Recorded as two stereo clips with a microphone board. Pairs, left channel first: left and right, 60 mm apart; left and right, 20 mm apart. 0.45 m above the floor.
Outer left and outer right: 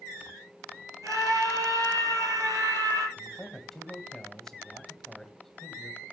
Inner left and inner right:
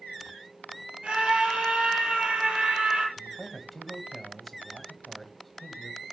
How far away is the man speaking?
About 2.5 m.